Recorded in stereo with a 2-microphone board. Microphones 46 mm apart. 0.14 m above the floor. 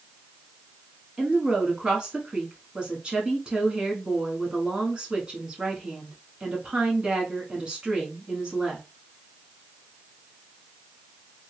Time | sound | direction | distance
1.2 | a woman speaking | 20° right (ahead or behind) | 1.1 m